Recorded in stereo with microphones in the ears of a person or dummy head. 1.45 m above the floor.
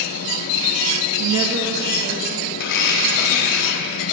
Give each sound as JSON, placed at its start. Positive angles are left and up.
{"t": 1.2, "sound": "a woman speaking", "side_deg": -45, "distance_m": 0.5}
{"t": 2.6, "sound": "a blender", "side_deg": 60, "distance_m": 0.7}